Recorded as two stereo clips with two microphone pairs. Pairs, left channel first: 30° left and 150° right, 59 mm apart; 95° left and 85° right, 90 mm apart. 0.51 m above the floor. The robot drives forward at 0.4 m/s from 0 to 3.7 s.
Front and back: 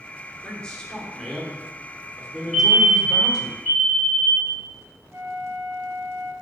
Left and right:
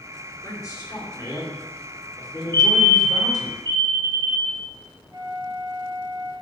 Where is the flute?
130° right, 1.2 m.